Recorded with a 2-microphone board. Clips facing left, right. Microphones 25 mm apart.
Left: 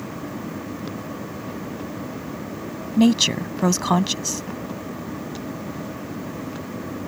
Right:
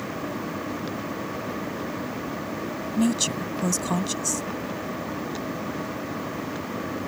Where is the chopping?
No chopping in this recording.